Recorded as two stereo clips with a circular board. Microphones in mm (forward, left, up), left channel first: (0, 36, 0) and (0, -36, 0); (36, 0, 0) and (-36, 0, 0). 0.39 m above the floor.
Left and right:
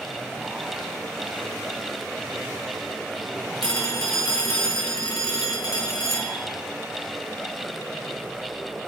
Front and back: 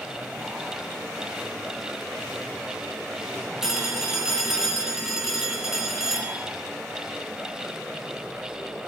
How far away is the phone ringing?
About 3 m.